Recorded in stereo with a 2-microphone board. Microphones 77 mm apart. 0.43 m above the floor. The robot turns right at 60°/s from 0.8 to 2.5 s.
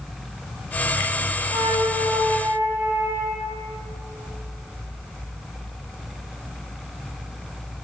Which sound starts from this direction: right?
A flute, at 1.5 s.